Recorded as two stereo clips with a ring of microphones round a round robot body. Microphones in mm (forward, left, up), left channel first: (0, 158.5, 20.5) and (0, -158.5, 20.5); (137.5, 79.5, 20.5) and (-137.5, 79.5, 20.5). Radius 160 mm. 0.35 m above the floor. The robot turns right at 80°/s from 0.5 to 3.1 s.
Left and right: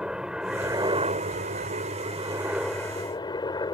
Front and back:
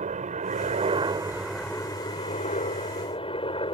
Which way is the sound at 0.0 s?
175° right.